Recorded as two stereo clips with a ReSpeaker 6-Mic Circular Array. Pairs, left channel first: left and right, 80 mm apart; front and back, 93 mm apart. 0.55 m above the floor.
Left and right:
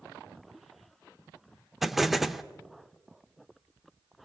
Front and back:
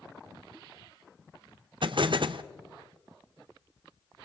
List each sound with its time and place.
1.8 s an explosion: 175° right, 0.7 m